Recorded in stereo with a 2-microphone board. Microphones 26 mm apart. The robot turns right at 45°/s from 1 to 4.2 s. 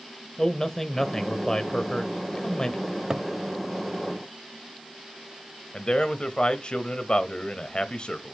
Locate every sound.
0.4 s a man speaking: 35° left, 1.2 m; by 2.8 s 115° left, 1.2 m
2.9 s a cupboard door: 30° right (ahead or behind), 0.5 m; by 3.3 s 20° right (ahead or behind), 0.5 m
5.7 s a man speaking: 45° left (ahead or behind), 1.1 m